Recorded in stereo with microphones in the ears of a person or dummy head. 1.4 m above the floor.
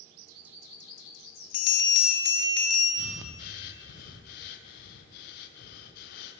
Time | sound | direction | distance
1.5 | a bell | 60° left (ahead or behind) | 0.9 m
3.0 | breathing | 60° left (ahead or behind) | 0.5 m